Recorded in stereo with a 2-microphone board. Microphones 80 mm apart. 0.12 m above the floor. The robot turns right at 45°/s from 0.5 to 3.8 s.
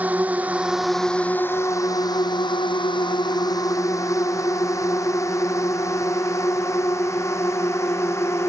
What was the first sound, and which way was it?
A drone, 20° right (ahead or behind).